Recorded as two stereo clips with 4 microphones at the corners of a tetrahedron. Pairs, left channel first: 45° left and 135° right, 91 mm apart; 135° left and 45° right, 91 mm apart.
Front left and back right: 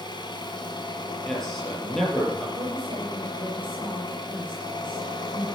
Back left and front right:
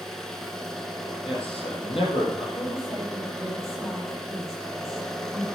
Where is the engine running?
50° left, 1.8 m.